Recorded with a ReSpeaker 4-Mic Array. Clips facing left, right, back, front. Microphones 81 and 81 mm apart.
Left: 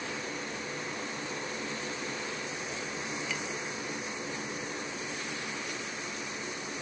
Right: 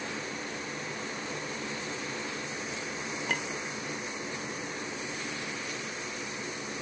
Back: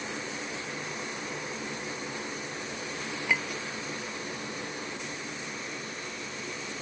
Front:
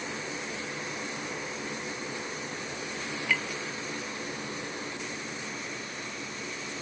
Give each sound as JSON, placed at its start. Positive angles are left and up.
{"t": 3.3, "sound": "a clink", "azimuth_deg": -110}